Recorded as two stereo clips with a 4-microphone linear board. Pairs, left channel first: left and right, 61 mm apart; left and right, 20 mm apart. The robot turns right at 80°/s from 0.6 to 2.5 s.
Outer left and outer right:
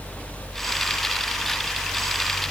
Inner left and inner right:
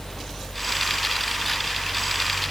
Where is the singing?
No singing in this recording.